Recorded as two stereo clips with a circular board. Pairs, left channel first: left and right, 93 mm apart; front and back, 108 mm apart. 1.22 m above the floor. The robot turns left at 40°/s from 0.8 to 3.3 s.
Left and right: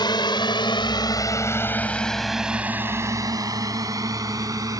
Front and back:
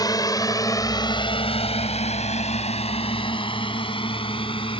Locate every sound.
0.0 s a drone: 55° left; by 4.8 s 35° right